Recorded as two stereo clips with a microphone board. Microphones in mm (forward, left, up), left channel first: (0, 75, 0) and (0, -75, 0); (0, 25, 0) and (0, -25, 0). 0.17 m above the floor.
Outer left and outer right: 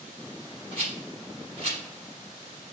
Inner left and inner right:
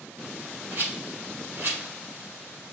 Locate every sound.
0.7 s a rattle: 45° right (ahead or behind), 1.5 m